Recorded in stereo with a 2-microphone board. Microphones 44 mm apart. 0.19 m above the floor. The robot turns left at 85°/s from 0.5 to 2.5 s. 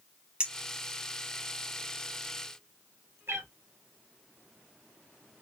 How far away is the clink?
About 0.8 m.